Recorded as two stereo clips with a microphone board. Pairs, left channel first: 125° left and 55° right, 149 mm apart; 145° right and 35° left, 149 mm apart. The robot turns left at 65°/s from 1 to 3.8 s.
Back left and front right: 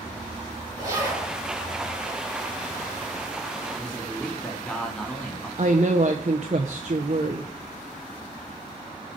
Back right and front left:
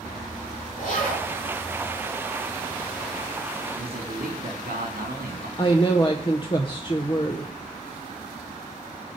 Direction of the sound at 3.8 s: 45° left.